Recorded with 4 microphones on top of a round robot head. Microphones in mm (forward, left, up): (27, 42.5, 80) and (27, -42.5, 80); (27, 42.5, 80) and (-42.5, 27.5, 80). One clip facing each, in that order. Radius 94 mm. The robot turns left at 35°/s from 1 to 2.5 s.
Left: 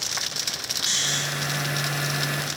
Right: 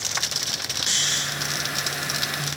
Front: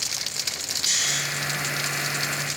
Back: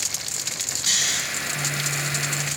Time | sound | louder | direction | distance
0.9 | snoring | left 1 dB, back 1 dB | 155° left | 0.5 m